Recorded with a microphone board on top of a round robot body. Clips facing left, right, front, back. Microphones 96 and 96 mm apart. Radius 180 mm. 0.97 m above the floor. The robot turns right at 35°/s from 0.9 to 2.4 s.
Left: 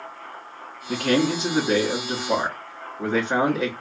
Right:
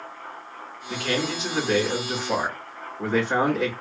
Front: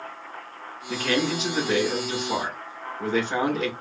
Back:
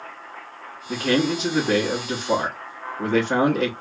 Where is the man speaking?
115° left, 1.9 m; by 3.7 s 170° left, 1.9 m.